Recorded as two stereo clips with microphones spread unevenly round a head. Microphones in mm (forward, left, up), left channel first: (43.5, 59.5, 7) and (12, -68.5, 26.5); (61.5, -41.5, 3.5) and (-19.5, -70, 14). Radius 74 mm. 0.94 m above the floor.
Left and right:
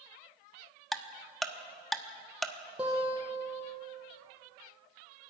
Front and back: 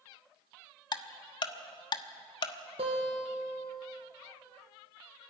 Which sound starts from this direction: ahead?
Ticking, at 0.9 s.